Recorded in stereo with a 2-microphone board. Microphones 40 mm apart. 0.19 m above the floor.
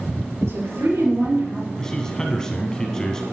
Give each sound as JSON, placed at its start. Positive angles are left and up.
{"t": 0.4, "sound": "a woman speaking", "side_deg": -75, "distance_m": 5.0}
{"t": 1.8, "sound": "a man speaking", "side_deg": 15, "distance_m": 1.5}